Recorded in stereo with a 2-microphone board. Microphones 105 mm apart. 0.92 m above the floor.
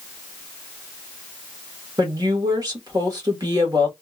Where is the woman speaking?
40° right (ahead or behind), 1.5 m.